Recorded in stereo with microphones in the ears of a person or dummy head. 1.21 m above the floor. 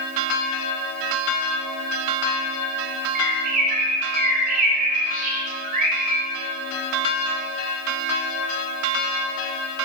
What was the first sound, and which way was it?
A bird, 45° right (ahead or behind).